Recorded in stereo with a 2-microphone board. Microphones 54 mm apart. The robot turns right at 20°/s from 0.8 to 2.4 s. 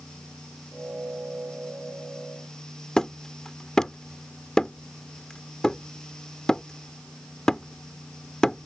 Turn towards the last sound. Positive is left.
turn(degrees=10)  # may be behind; listen again after turning